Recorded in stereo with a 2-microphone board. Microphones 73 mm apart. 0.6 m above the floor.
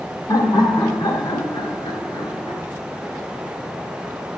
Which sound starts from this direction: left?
Laughter, at 0.3 s.